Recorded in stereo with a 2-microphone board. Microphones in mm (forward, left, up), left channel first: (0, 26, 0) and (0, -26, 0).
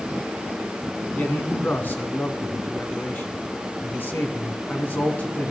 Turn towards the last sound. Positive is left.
turn(degrees=40)  # may be behind; listen again after turning